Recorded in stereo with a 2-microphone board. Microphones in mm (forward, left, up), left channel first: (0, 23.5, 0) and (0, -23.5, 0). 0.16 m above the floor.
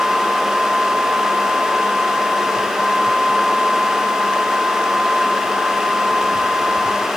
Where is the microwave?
No microwave in this recording.